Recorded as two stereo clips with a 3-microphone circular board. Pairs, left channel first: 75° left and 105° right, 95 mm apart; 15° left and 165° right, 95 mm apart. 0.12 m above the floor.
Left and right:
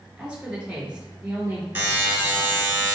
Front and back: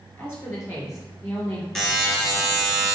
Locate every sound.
0.2 s a woman speaking: 35° right, 1.7 m; by 1.6 s 30° right, 2.5 m
1.8 s a buzzer: 65° right, 1.4 m